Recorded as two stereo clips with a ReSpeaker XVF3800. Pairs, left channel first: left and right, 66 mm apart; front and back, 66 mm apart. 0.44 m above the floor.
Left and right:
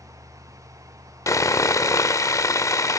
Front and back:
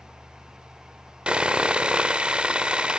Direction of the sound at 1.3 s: 110° left.